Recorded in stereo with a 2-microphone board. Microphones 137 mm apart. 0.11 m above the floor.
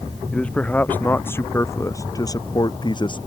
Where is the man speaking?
10° left (ahead or behind); by 3.2 s 35° left (ahead or behind).